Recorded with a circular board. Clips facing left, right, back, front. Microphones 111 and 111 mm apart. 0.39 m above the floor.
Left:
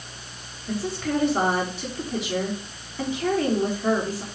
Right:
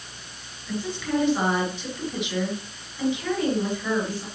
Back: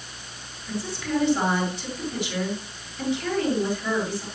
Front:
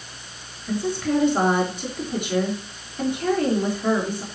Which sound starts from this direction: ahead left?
A woman speaking, at 0.7 s.